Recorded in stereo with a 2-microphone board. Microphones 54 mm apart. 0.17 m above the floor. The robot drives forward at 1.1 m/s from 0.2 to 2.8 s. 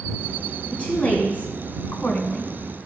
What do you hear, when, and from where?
0.7 s a woman speaking: 20° left (ahead or behind), 1.7 m; by 2.5 s 25° left (ahead or behind), 1.5 m